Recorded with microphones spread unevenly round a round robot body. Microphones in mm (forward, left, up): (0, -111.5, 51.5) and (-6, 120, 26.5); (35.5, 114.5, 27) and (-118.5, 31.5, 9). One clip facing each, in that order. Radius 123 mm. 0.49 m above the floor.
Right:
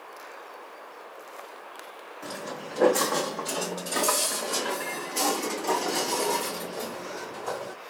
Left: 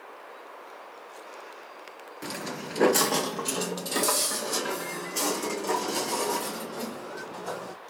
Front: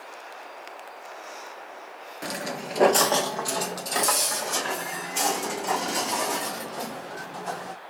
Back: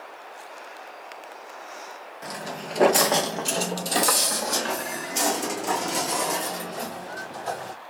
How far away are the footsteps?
About 0.6 m.